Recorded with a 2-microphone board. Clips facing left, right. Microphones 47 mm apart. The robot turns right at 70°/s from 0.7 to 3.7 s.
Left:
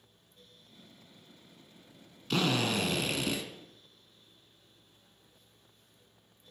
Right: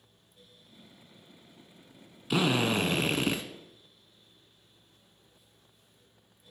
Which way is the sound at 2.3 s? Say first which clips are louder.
Right 3 dB; 160° right.